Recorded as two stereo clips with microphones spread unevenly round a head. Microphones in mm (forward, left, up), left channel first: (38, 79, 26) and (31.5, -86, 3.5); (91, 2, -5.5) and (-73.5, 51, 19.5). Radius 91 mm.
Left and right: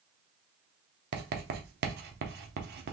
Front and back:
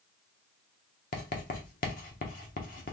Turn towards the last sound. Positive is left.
turn(degrees=-65)